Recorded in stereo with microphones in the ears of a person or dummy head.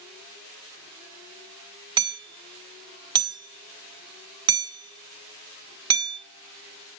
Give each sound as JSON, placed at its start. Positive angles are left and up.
{"t": 2.0, "sound": "hammering", "side_deg": -20, "distance_m": 0.6}